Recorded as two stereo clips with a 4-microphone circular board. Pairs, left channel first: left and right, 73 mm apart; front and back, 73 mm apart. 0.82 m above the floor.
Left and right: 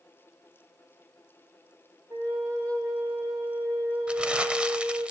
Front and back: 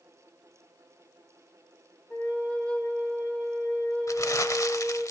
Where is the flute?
70° right, 3 m.